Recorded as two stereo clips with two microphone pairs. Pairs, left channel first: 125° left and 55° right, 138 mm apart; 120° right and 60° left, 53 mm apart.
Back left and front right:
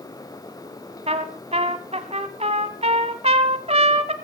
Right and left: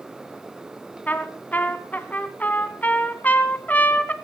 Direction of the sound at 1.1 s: 75° right.